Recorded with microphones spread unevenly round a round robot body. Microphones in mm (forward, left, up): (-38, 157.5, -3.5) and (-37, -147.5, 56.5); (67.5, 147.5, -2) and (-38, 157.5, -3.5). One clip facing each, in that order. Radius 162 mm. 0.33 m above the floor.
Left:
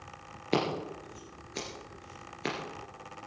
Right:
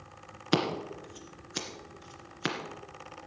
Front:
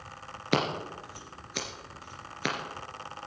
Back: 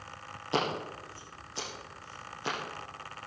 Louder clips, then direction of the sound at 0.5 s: Right 1 dB, front 2 dB; 25° right.